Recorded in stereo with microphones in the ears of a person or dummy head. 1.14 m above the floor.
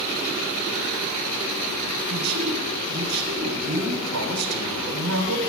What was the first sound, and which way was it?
A man speaking, 85° right.